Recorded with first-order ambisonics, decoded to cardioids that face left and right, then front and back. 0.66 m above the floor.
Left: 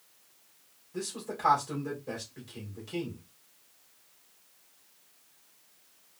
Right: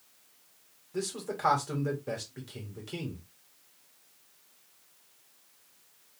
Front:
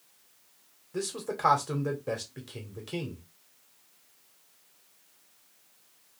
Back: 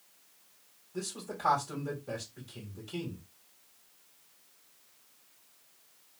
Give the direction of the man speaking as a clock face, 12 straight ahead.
1 o'clock.